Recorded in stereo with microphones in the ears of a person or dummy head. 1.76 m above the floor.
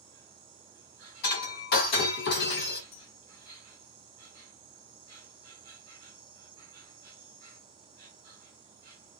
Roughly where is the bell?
Left.